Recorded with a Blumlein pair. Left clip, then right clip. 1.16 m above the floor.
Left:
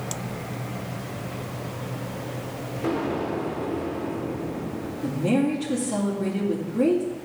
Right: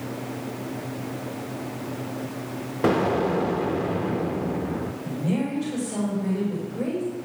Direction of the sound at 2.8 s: 55° right.